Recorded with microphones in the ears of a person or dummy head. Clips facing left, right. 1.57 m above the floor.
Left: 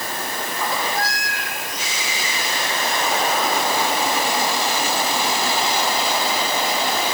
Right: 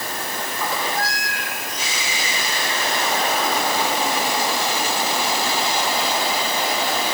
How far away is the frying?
I don't hear frying.